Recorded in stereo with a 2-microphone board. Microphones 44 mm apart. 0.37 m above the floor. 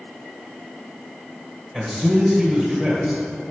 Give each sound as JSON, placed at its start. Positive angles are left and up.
{"t": 1.7, "sound": "a man speaking", "side_deg": 5, "distance_m": 1.5}